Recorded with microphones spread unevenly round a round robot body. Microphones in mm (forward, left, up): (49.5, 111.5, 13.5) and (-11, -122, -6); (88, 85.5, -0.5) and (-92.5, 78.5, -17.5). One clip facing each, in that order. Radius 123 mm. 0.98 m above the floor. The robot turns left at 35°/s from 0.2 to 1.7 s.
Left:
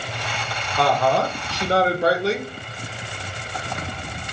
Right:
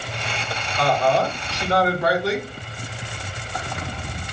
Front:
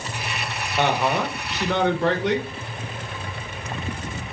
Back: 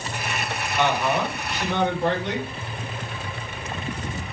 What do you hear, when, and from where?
0.8 s a woman speaking: 45° left, 0.9 m; by 2.5 s 15° left, 0.9 m